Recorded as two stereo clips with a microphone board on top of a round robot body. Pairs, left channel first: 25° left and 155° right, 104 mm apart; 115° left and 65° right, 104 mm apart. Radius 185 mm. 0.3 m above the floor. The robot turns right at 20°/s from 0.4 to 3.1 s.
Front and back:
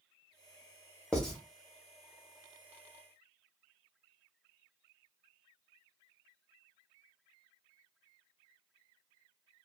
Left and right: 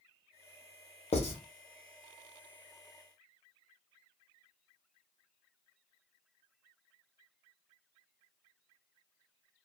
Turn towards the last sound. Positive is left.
turn(degrees=145)